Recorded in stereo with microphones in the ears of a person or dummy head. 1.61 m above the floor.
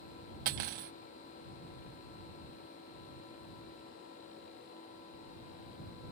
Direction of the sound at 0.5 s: 50° right (ahead or behind).